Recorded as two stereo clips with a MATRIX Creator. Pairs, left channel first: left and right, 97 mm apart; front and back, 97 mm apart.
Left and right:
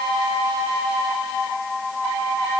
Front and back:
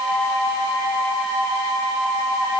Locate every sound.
Only background noise.